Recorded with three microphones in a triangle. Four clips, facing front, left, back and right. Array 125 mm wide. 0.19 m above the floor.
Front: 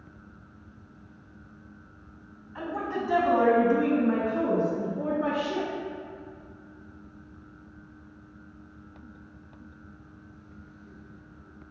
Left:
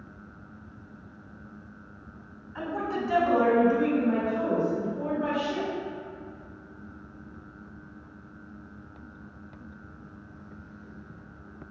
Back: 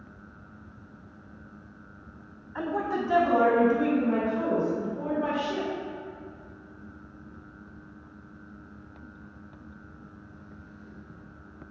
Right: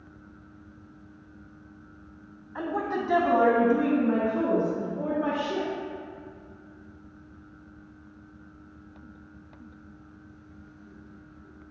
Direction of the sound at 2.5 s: 140° right.